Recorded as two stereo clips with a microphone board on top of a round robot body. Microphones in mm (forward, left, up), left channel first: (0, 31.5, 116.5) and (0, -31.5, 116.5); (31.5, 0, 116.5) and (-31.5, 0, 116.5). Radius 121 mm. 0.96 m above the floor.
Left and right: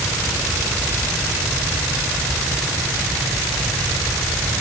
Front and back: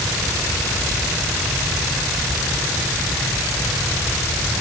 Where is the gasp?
No gasp in this recording.